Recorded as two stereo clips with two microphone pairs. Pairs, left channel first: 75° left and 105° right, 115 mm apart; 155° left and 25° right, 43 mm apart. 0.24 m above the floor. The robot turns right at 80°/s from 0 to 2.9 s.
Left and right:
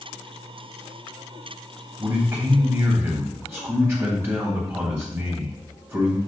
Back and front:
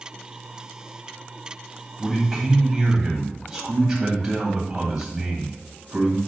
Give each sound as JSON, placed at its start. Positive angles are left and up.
{"t": 2.0, "sound": "a man speaking", "azimuth_deg": -160, "distance_m": 1.4}